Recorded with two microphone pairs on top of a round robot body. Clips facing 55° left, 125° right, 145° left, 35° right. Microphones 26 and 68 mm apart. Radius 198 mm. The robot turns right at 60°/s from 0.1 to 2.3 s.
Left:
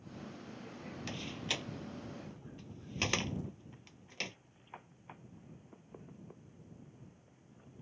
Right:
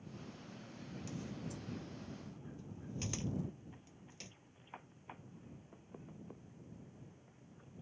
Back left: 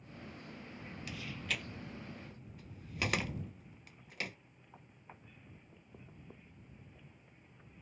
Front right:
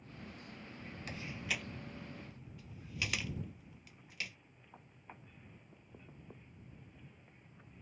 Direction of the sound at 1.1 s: 20° left.